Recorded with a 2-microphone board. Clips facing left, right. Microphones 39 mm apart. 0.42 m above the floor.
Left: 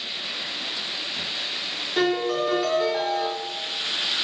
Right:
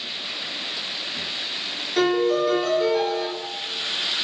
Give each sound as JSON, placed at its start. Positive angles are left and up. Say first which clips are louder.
{"t": 2.0, "sound": "a piano", "louder": "right 3 dB", "side_deg": 10, "distance_m": 1.0}